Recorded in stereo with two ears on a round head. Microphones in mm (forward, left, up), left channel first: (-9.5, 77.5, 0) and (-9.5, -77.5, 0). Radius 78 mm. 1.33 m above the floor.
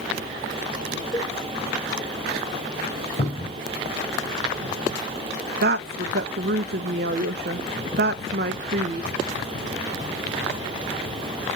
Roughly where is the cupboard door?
Left.